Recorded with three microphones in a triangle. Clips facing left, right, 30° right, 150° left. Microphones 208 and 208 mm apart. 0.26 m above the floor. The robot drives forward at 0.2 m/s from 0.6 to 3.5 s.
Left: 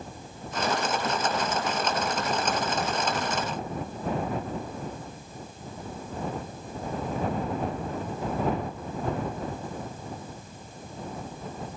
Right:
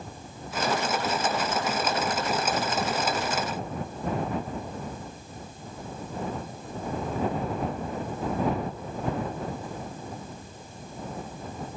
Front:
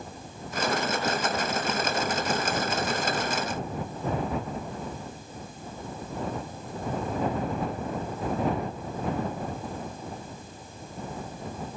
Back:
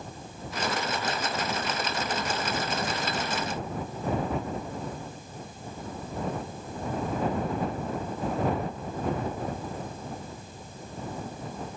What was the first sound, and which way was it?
Only background noise.